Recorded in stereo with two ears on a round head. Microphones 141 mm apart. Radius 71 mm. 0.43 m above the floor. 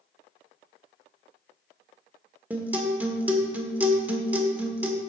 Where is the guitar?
10° right (ahead or behind), 1.1 m.